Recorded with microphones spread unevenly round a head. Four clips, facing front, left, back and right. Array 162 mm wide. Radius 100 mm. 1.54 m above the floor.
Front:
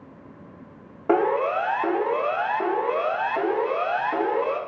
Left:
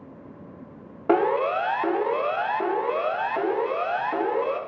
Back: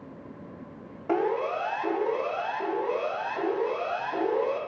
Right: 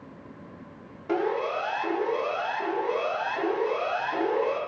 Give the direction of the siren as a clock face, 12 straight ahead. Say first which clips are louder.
Left 6 dB, front 5 dB; 11 o'clock.